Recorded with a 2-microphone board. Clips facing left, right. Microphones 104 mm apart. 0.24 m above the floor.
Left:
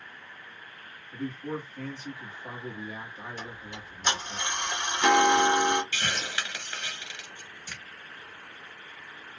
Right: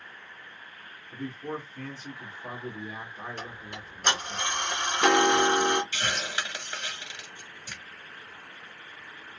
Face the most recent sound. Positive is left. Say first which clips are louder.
# even
turn(degrees=-10)  # may be behind; listen again after turning